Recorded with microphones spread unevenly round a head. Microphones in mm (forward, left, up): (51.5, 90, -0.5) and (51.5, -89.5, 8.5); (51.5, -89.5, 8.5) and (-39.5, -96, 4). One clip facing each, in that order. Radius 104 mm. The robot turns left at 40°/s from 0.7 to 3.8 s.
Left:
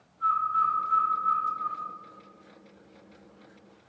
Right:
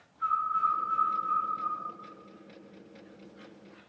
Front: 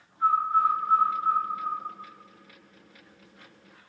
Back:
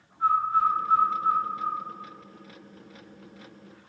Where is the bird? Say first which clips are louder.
Left 3 dB, even; 145° right, 1.5 m; by 1.8 s 175° left, 1.5 m.